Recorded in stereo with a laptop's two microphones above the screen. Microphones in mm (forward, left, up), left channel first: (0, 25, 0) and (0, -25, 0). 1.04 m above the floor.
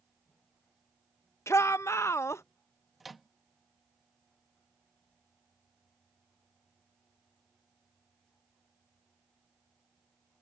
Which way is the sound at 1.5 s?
65° left (ahead or behind).